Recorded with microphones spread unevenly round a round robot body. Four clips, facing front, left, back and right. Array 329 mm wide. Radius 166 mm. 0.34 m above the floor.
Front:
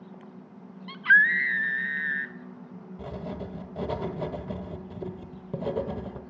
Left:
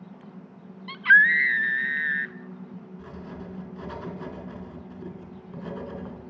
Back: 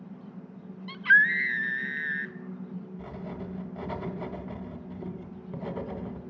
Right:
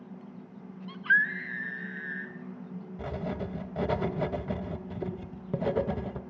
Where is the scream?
105° left, 1.3 m.